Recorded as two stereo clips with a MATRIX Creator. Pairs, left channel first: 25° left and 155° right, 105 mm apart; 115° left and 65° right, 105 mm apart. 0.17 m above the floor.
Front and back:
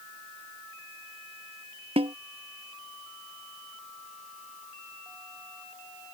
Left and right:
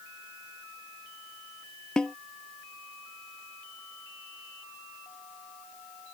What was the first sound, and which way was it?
A snare drum, 165° right.